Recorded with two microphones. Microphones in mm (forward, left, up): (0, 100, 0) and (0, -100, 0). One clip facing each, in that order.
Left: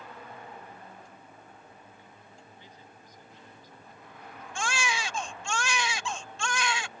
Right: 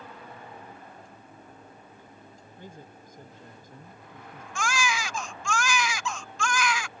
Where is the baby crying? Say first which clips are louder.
Right 3 dB; 30° left (ahead or behind).